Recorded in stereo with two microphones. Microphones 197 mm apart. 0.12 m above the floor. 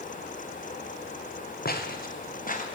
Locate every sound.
1.6 s footsteps: 50° left (ahead or behind), 2 m; by 2.6 s 45° left (ahead or behind), 2.5 m